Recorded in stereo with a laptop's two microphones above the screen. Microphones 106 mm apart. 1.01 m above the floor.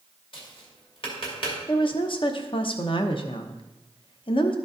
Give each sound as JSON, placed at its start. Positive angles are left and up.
{"t": 0.3, "sound": "tapping", "side_deg": 55, "distance_m": 2.0}
{"t": 1.7, "sound": "a woman speaking", "side_deg": 55, "distance_m": 0.8}